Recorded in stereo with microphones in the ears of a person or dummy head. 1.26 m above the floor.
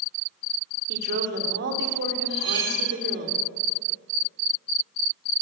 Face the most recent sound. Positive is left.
turn(degrees=-20)  # may be behind; listen again after turning